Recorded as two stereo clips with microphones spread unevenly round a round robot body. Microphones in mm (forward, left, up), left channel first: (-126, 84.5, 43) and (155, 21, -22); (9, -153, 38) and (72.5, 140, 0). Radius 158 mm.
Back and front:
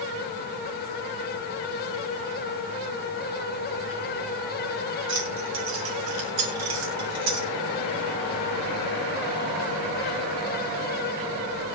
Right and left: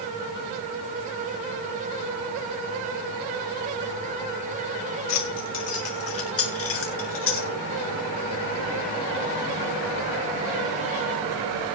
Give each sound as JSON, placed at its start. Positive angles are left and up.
{"t": 5.1, "sound": "keys jangling", "azimuth_deg": -65, "distance_m": 4.5}